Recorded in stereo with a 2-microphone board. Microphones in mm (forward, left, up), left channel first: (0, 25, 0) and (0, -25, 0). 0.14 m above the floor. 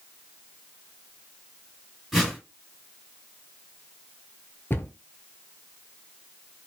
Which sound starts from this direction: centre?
A whoosh, at 2.1 s.